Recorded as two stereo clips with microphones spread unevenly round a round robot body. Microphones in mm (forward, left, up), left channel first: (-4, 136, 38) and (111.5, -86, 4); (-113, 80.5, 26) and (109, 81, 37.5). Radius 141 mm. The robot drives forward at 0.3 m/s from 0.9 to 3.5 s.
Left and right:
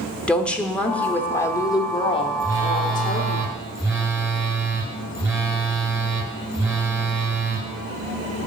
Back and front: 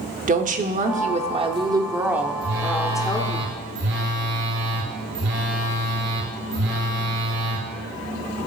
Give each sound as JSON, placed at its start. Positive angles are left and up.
{"t": 0.3, "sound": "a woman speaking", "azimuth_deg": 25, "distance_m": 0.8}
{"t": 2.4, "sound": "a phone buzzing", "azimuth_deg": 10, "distance_m": 2.0}